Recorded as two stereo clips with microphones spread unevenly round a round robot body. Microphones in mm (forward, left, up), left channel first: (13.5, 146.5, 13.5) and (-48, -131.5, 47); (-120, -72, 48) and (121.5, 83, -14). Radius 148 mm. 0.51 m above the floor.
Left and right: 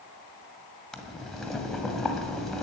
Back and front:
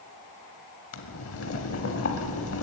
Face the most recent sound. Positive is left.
turn(degrees=165)